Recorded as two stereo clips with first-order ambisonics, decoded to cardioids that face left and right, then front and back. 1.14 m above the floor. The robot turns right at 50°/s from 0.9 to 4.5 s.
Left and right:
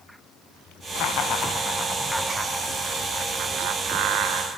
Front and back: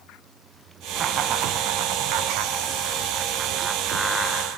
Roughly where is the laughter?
Behind left.